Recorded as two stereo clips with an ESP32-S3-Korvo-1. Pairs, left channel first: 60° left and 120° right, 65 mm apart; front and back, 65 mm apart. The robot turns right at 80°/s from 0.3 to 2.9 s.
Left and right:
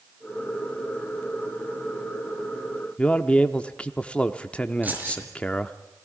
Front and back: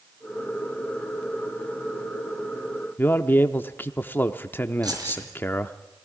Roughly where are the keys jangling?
Behind.